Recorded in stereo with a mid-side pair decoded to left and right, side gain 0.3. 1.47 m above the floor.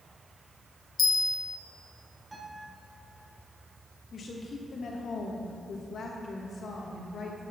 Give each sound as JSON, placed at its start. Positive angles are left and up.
{"t": 1.0, "sound": "a bell", "azimuth_deg": 70, "distance_m": 0.7}
{"t": 2.3, "sound": "a guitar", "azimuth_deg": -30, "distance_m": 3.5}
{"t": 4.1, "sound": "a woman speaking", "azimuth_deg": 65, "distance_m": 2.0}